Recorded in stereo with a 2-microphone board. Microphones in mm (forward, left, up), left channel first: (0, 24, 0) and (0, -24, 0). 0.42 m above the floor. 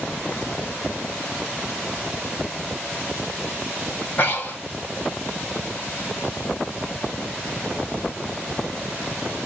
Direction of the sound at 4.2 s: 35° left (ahead or behind).